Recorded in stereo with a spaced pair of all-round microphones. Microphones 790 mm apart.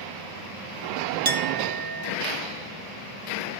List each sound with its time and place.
1.2 s a clink: 30° right (ahead or behind), 0.6 m